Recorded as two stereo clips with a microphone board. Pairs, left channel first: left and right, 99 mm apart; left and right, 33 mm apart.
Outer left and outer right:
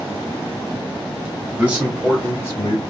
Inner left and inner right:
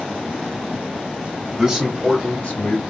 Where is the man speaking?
20° right (ahead or behind), 1.5 m; by 2.8 s 50° left (ahead or behind), 1.0 m.